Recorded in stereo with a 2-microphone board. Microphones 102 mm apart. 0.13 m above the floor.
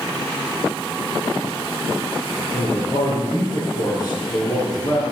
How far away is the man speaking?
About 2.5 m.